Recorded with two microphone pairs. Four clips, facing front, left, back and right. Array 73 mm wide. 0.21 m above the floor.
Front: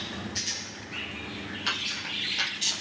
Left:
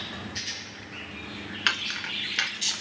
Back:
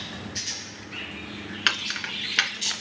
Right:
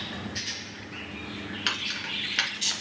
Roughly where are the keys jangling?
Behind left.